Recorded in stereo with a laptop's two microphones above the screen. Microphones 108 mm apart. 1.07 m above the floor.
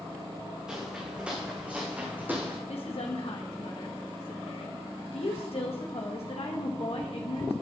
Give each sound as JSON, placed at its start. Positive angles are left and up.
{"t": 0.7, "sound": "footsteps", "side_deg": -5, "distance_m": 3.0}
{"t": 2.7, "sound": "a woman speaking", "side_deg": 70, "distance_m": 1.7}